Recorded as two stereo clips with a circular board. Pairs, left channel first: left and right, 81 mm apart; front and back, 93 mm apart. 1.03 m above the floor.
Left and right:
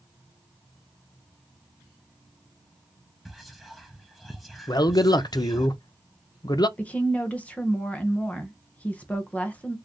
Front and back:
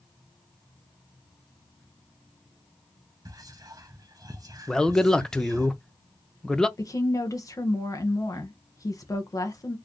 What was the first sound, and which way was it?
Whispering, straight behind.